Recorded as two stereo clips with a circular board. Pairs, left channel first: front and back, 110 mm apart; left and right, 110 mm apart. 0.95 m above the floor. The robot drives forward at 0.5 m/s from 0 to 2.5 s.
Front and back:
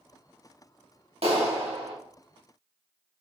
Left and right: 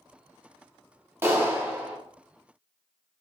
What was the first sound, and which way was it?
A clap, 160° right.